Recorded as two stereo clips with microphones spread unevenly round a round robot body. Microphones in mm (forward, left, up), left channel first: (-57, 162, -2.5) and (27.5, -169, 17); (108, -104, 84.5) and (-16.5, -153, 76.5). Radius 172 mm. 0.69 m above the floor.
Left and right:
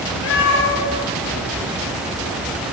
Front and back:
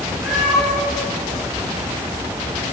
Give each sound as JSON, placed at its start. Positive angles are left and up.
{"t": 0.2, "sound": "a cat meowing", "azimuth_deg": 115, "distance_m": 9.5}